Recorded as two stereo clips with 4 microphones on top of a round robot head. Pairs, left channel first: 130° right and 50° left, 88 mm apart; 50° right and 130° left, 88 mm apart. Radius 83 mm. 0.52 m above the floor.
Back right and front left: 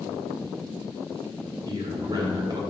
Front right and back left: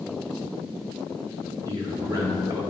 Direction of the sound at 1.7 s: 85° left.